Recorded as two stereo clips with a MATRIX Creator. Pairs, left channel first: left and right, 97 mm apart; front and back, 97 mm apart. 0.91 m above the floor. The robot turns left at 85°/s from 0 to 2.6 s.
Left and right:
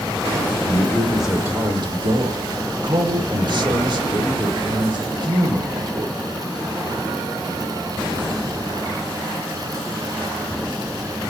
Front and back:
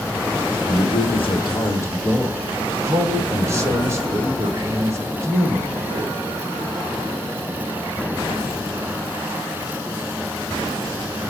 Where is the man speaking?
45° left, 1.2 m; by 6.1 s 120° right, 1.2 m.